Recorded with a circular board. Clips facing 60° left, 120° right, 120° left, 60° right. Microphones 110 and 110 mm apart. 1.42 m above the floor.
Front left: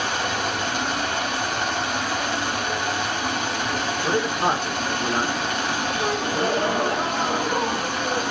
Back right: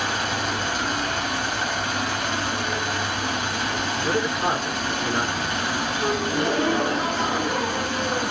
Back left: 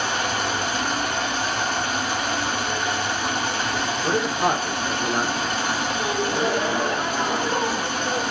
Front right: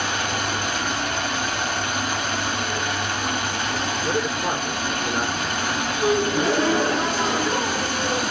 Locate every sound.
0.0 s running water: 65° left, 2.0 m
4.0 s a man speaking: 110° left, 1.2 m
6.0 s a gasp: 50° left, 1.8 m